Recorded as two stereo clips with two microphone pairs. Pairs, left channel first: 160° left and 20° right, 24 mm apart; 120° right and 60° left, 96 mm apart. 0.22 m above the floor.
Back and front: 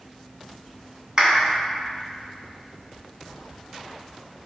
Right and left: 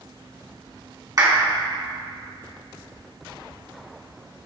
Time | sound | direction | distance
1.2 | a clap | 30° left | 1.5 m